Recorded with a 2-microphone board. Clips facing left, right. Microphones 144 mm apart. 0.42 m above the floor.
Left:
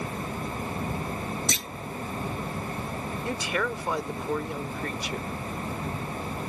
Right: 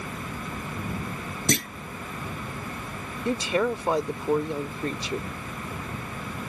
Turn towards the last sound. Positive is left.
turn(degrees=-25)  # may be behind; listen again after turning